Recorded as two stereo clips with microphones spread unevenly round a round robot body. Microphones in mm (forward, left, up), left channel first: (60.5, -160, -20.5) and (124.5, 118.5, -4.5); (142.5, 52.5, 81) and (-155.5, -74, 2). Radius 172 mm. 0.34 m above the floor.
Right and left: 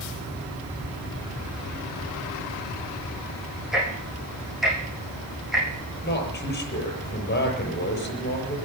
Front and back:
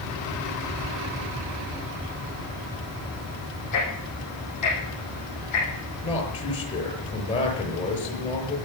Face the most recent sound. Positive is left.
turn(degrees=-50)